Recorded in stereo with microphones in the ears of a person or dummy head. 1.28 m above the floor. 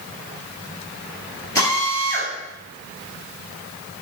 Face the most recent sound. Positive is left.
turn(degrees=15)  # may be behind; listen again after turning